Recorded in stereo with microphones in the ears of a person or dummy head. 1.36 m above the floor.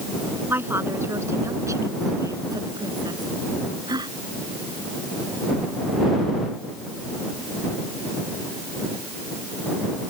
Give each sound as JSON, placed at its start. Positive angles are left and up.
{"t": 0.5, "sound": "a woman speaking", "side_deg": -15}